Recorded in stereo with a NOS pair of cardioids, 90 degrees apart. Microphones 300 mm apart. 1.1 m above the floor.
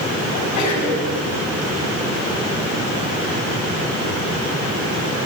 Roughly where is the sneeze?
Left.